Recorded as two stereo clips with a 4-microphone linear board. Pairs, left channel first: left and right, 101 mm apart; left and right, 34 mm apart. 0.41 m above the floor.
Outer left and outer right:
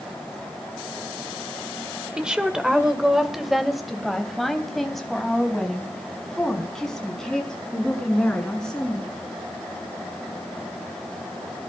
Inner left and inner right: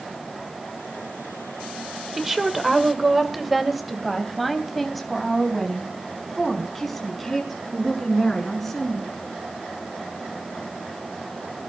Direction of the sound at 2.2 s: 10° right (ahead or behind).